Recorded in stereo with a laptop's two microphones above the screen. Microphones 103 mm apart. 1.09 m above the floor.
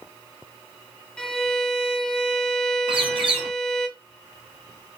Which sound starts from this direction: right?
A bird, at 2.9 s.